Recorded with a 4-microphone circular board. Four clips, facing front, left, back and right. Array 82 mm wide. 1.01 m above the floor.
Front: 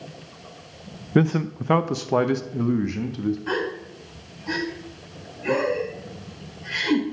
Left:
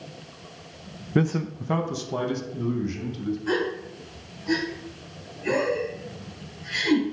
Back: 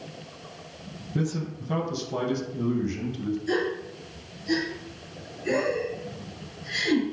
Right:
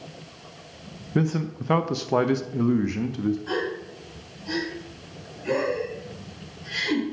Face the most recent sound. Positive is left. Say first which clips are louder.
# left 2 dB, even
turn(degrees=5)